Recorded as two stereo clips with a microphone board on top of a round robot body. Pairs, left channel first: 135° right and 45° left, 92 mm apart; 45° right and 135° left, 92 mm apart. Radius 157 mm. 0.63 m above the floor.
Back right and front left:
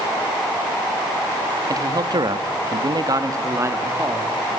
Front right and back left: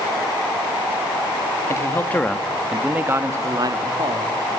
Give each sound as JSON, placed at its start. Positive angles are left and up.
{"t": 1.7, "sound": "a man speaking", "azimuth_deg": 5, "distance_m": 1.7}